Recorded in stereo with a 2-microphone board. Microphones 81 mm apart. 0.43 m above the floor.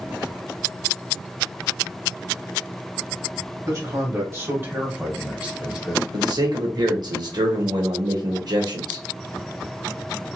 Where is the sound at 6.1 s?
55° right (ahead or behind), 1.2 m.